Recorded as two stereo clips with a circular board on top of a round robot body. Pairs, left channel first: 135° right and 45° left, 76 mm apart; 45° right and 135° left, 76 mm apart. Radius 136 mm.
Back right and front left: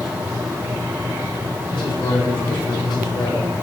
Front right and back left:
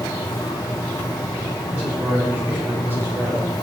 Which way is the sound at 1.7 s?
155° right.